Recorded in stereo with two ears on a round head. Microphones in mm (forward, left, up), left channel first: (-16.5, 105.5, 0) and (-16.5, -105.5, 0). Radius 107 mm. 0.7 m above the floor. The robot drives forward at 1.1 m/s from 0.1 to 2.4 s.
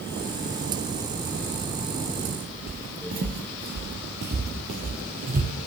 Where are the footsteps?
40° right (ahead or behind), 1.0 m; by 5.5 s 30° right (ahead or behind), 1.6 m.